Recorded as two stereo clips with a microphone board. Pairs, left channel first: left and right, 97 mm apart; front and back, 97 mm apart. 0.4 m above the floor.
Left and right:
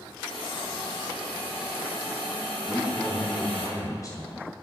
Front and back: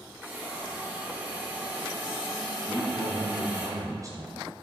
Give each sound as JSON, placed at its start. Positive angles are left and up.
{"t": 0.2, "sound": "a hiss", "azimuth_deg": 105, "distance_m": 2.5}
{"t": 2.7, "sound": "a man speaking", "azimuth_deg": 135, "distance_m": 2.5}